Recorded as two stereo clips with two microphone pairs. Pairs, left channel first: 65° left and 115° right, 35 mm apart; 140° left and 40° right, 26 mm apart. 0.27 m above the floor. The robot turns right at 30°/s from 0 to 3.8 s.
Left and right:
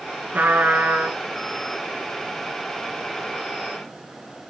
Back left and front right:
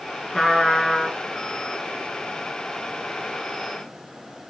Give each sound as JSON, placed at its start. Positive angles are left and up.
{"t": 0.3, "sound": "a trumpet", "azimuth_deg": -155, "distance_m": 4.0}